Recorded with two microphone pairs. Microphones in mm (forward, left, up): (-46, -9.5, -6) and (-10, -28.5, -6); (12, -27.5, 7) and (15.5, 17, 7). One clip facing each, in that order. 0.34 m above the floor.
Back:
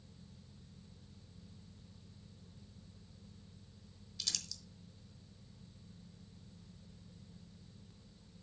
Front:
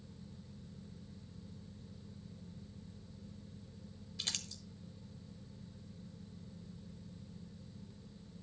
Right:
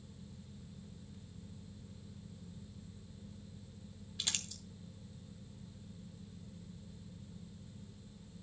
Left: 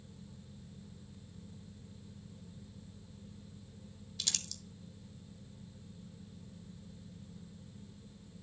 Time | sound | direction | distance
4.2 | crumpling | 40° right | 1.1 m